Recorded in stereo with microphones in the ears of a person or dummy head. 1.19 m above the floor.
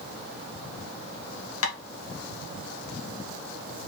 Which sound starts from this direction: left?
Tapping, at 1.6 s.